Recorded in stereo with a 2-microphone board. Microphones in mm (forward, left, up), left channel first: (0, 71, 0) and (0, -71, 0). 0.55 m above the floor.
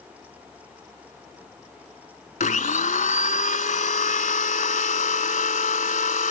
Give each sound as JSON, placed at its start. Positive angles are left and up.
{"t": 2.4, "sound": "a blender", "side_deg": 70}